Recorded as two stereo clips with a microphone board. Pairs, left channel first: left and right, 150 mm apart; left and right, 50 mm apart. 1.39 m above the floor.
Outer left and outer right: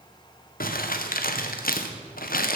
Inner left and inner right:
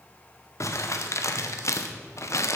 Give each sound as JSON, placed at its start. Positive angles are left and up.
{"t": 0.6, "sound": "crumpling", "side_deg": 75, "distance_m": 1.1}